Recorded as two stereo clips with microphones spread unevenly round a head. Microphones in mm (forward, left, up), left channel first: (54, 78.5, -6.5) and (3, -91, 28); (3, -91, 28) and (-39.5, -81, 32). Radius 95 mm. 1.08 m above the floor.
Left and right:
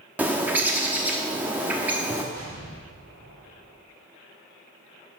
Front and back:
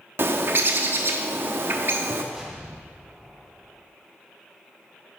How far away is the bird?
About 0.8 m.